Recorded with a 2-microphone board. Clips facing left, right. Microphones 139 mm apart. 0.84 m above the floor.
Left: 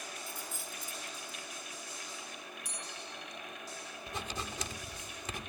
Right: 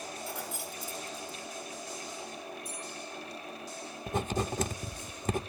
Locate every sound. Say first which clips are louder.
0.2 s keys jangling: right 6 dB; 85° right, 2.5 m
2.6 s a bell: right 5 dB; 75° left (ahead or behind), 7.5 m
4.1 s writing: right 10 dB; 45° right (ahead or behind), 1.0 m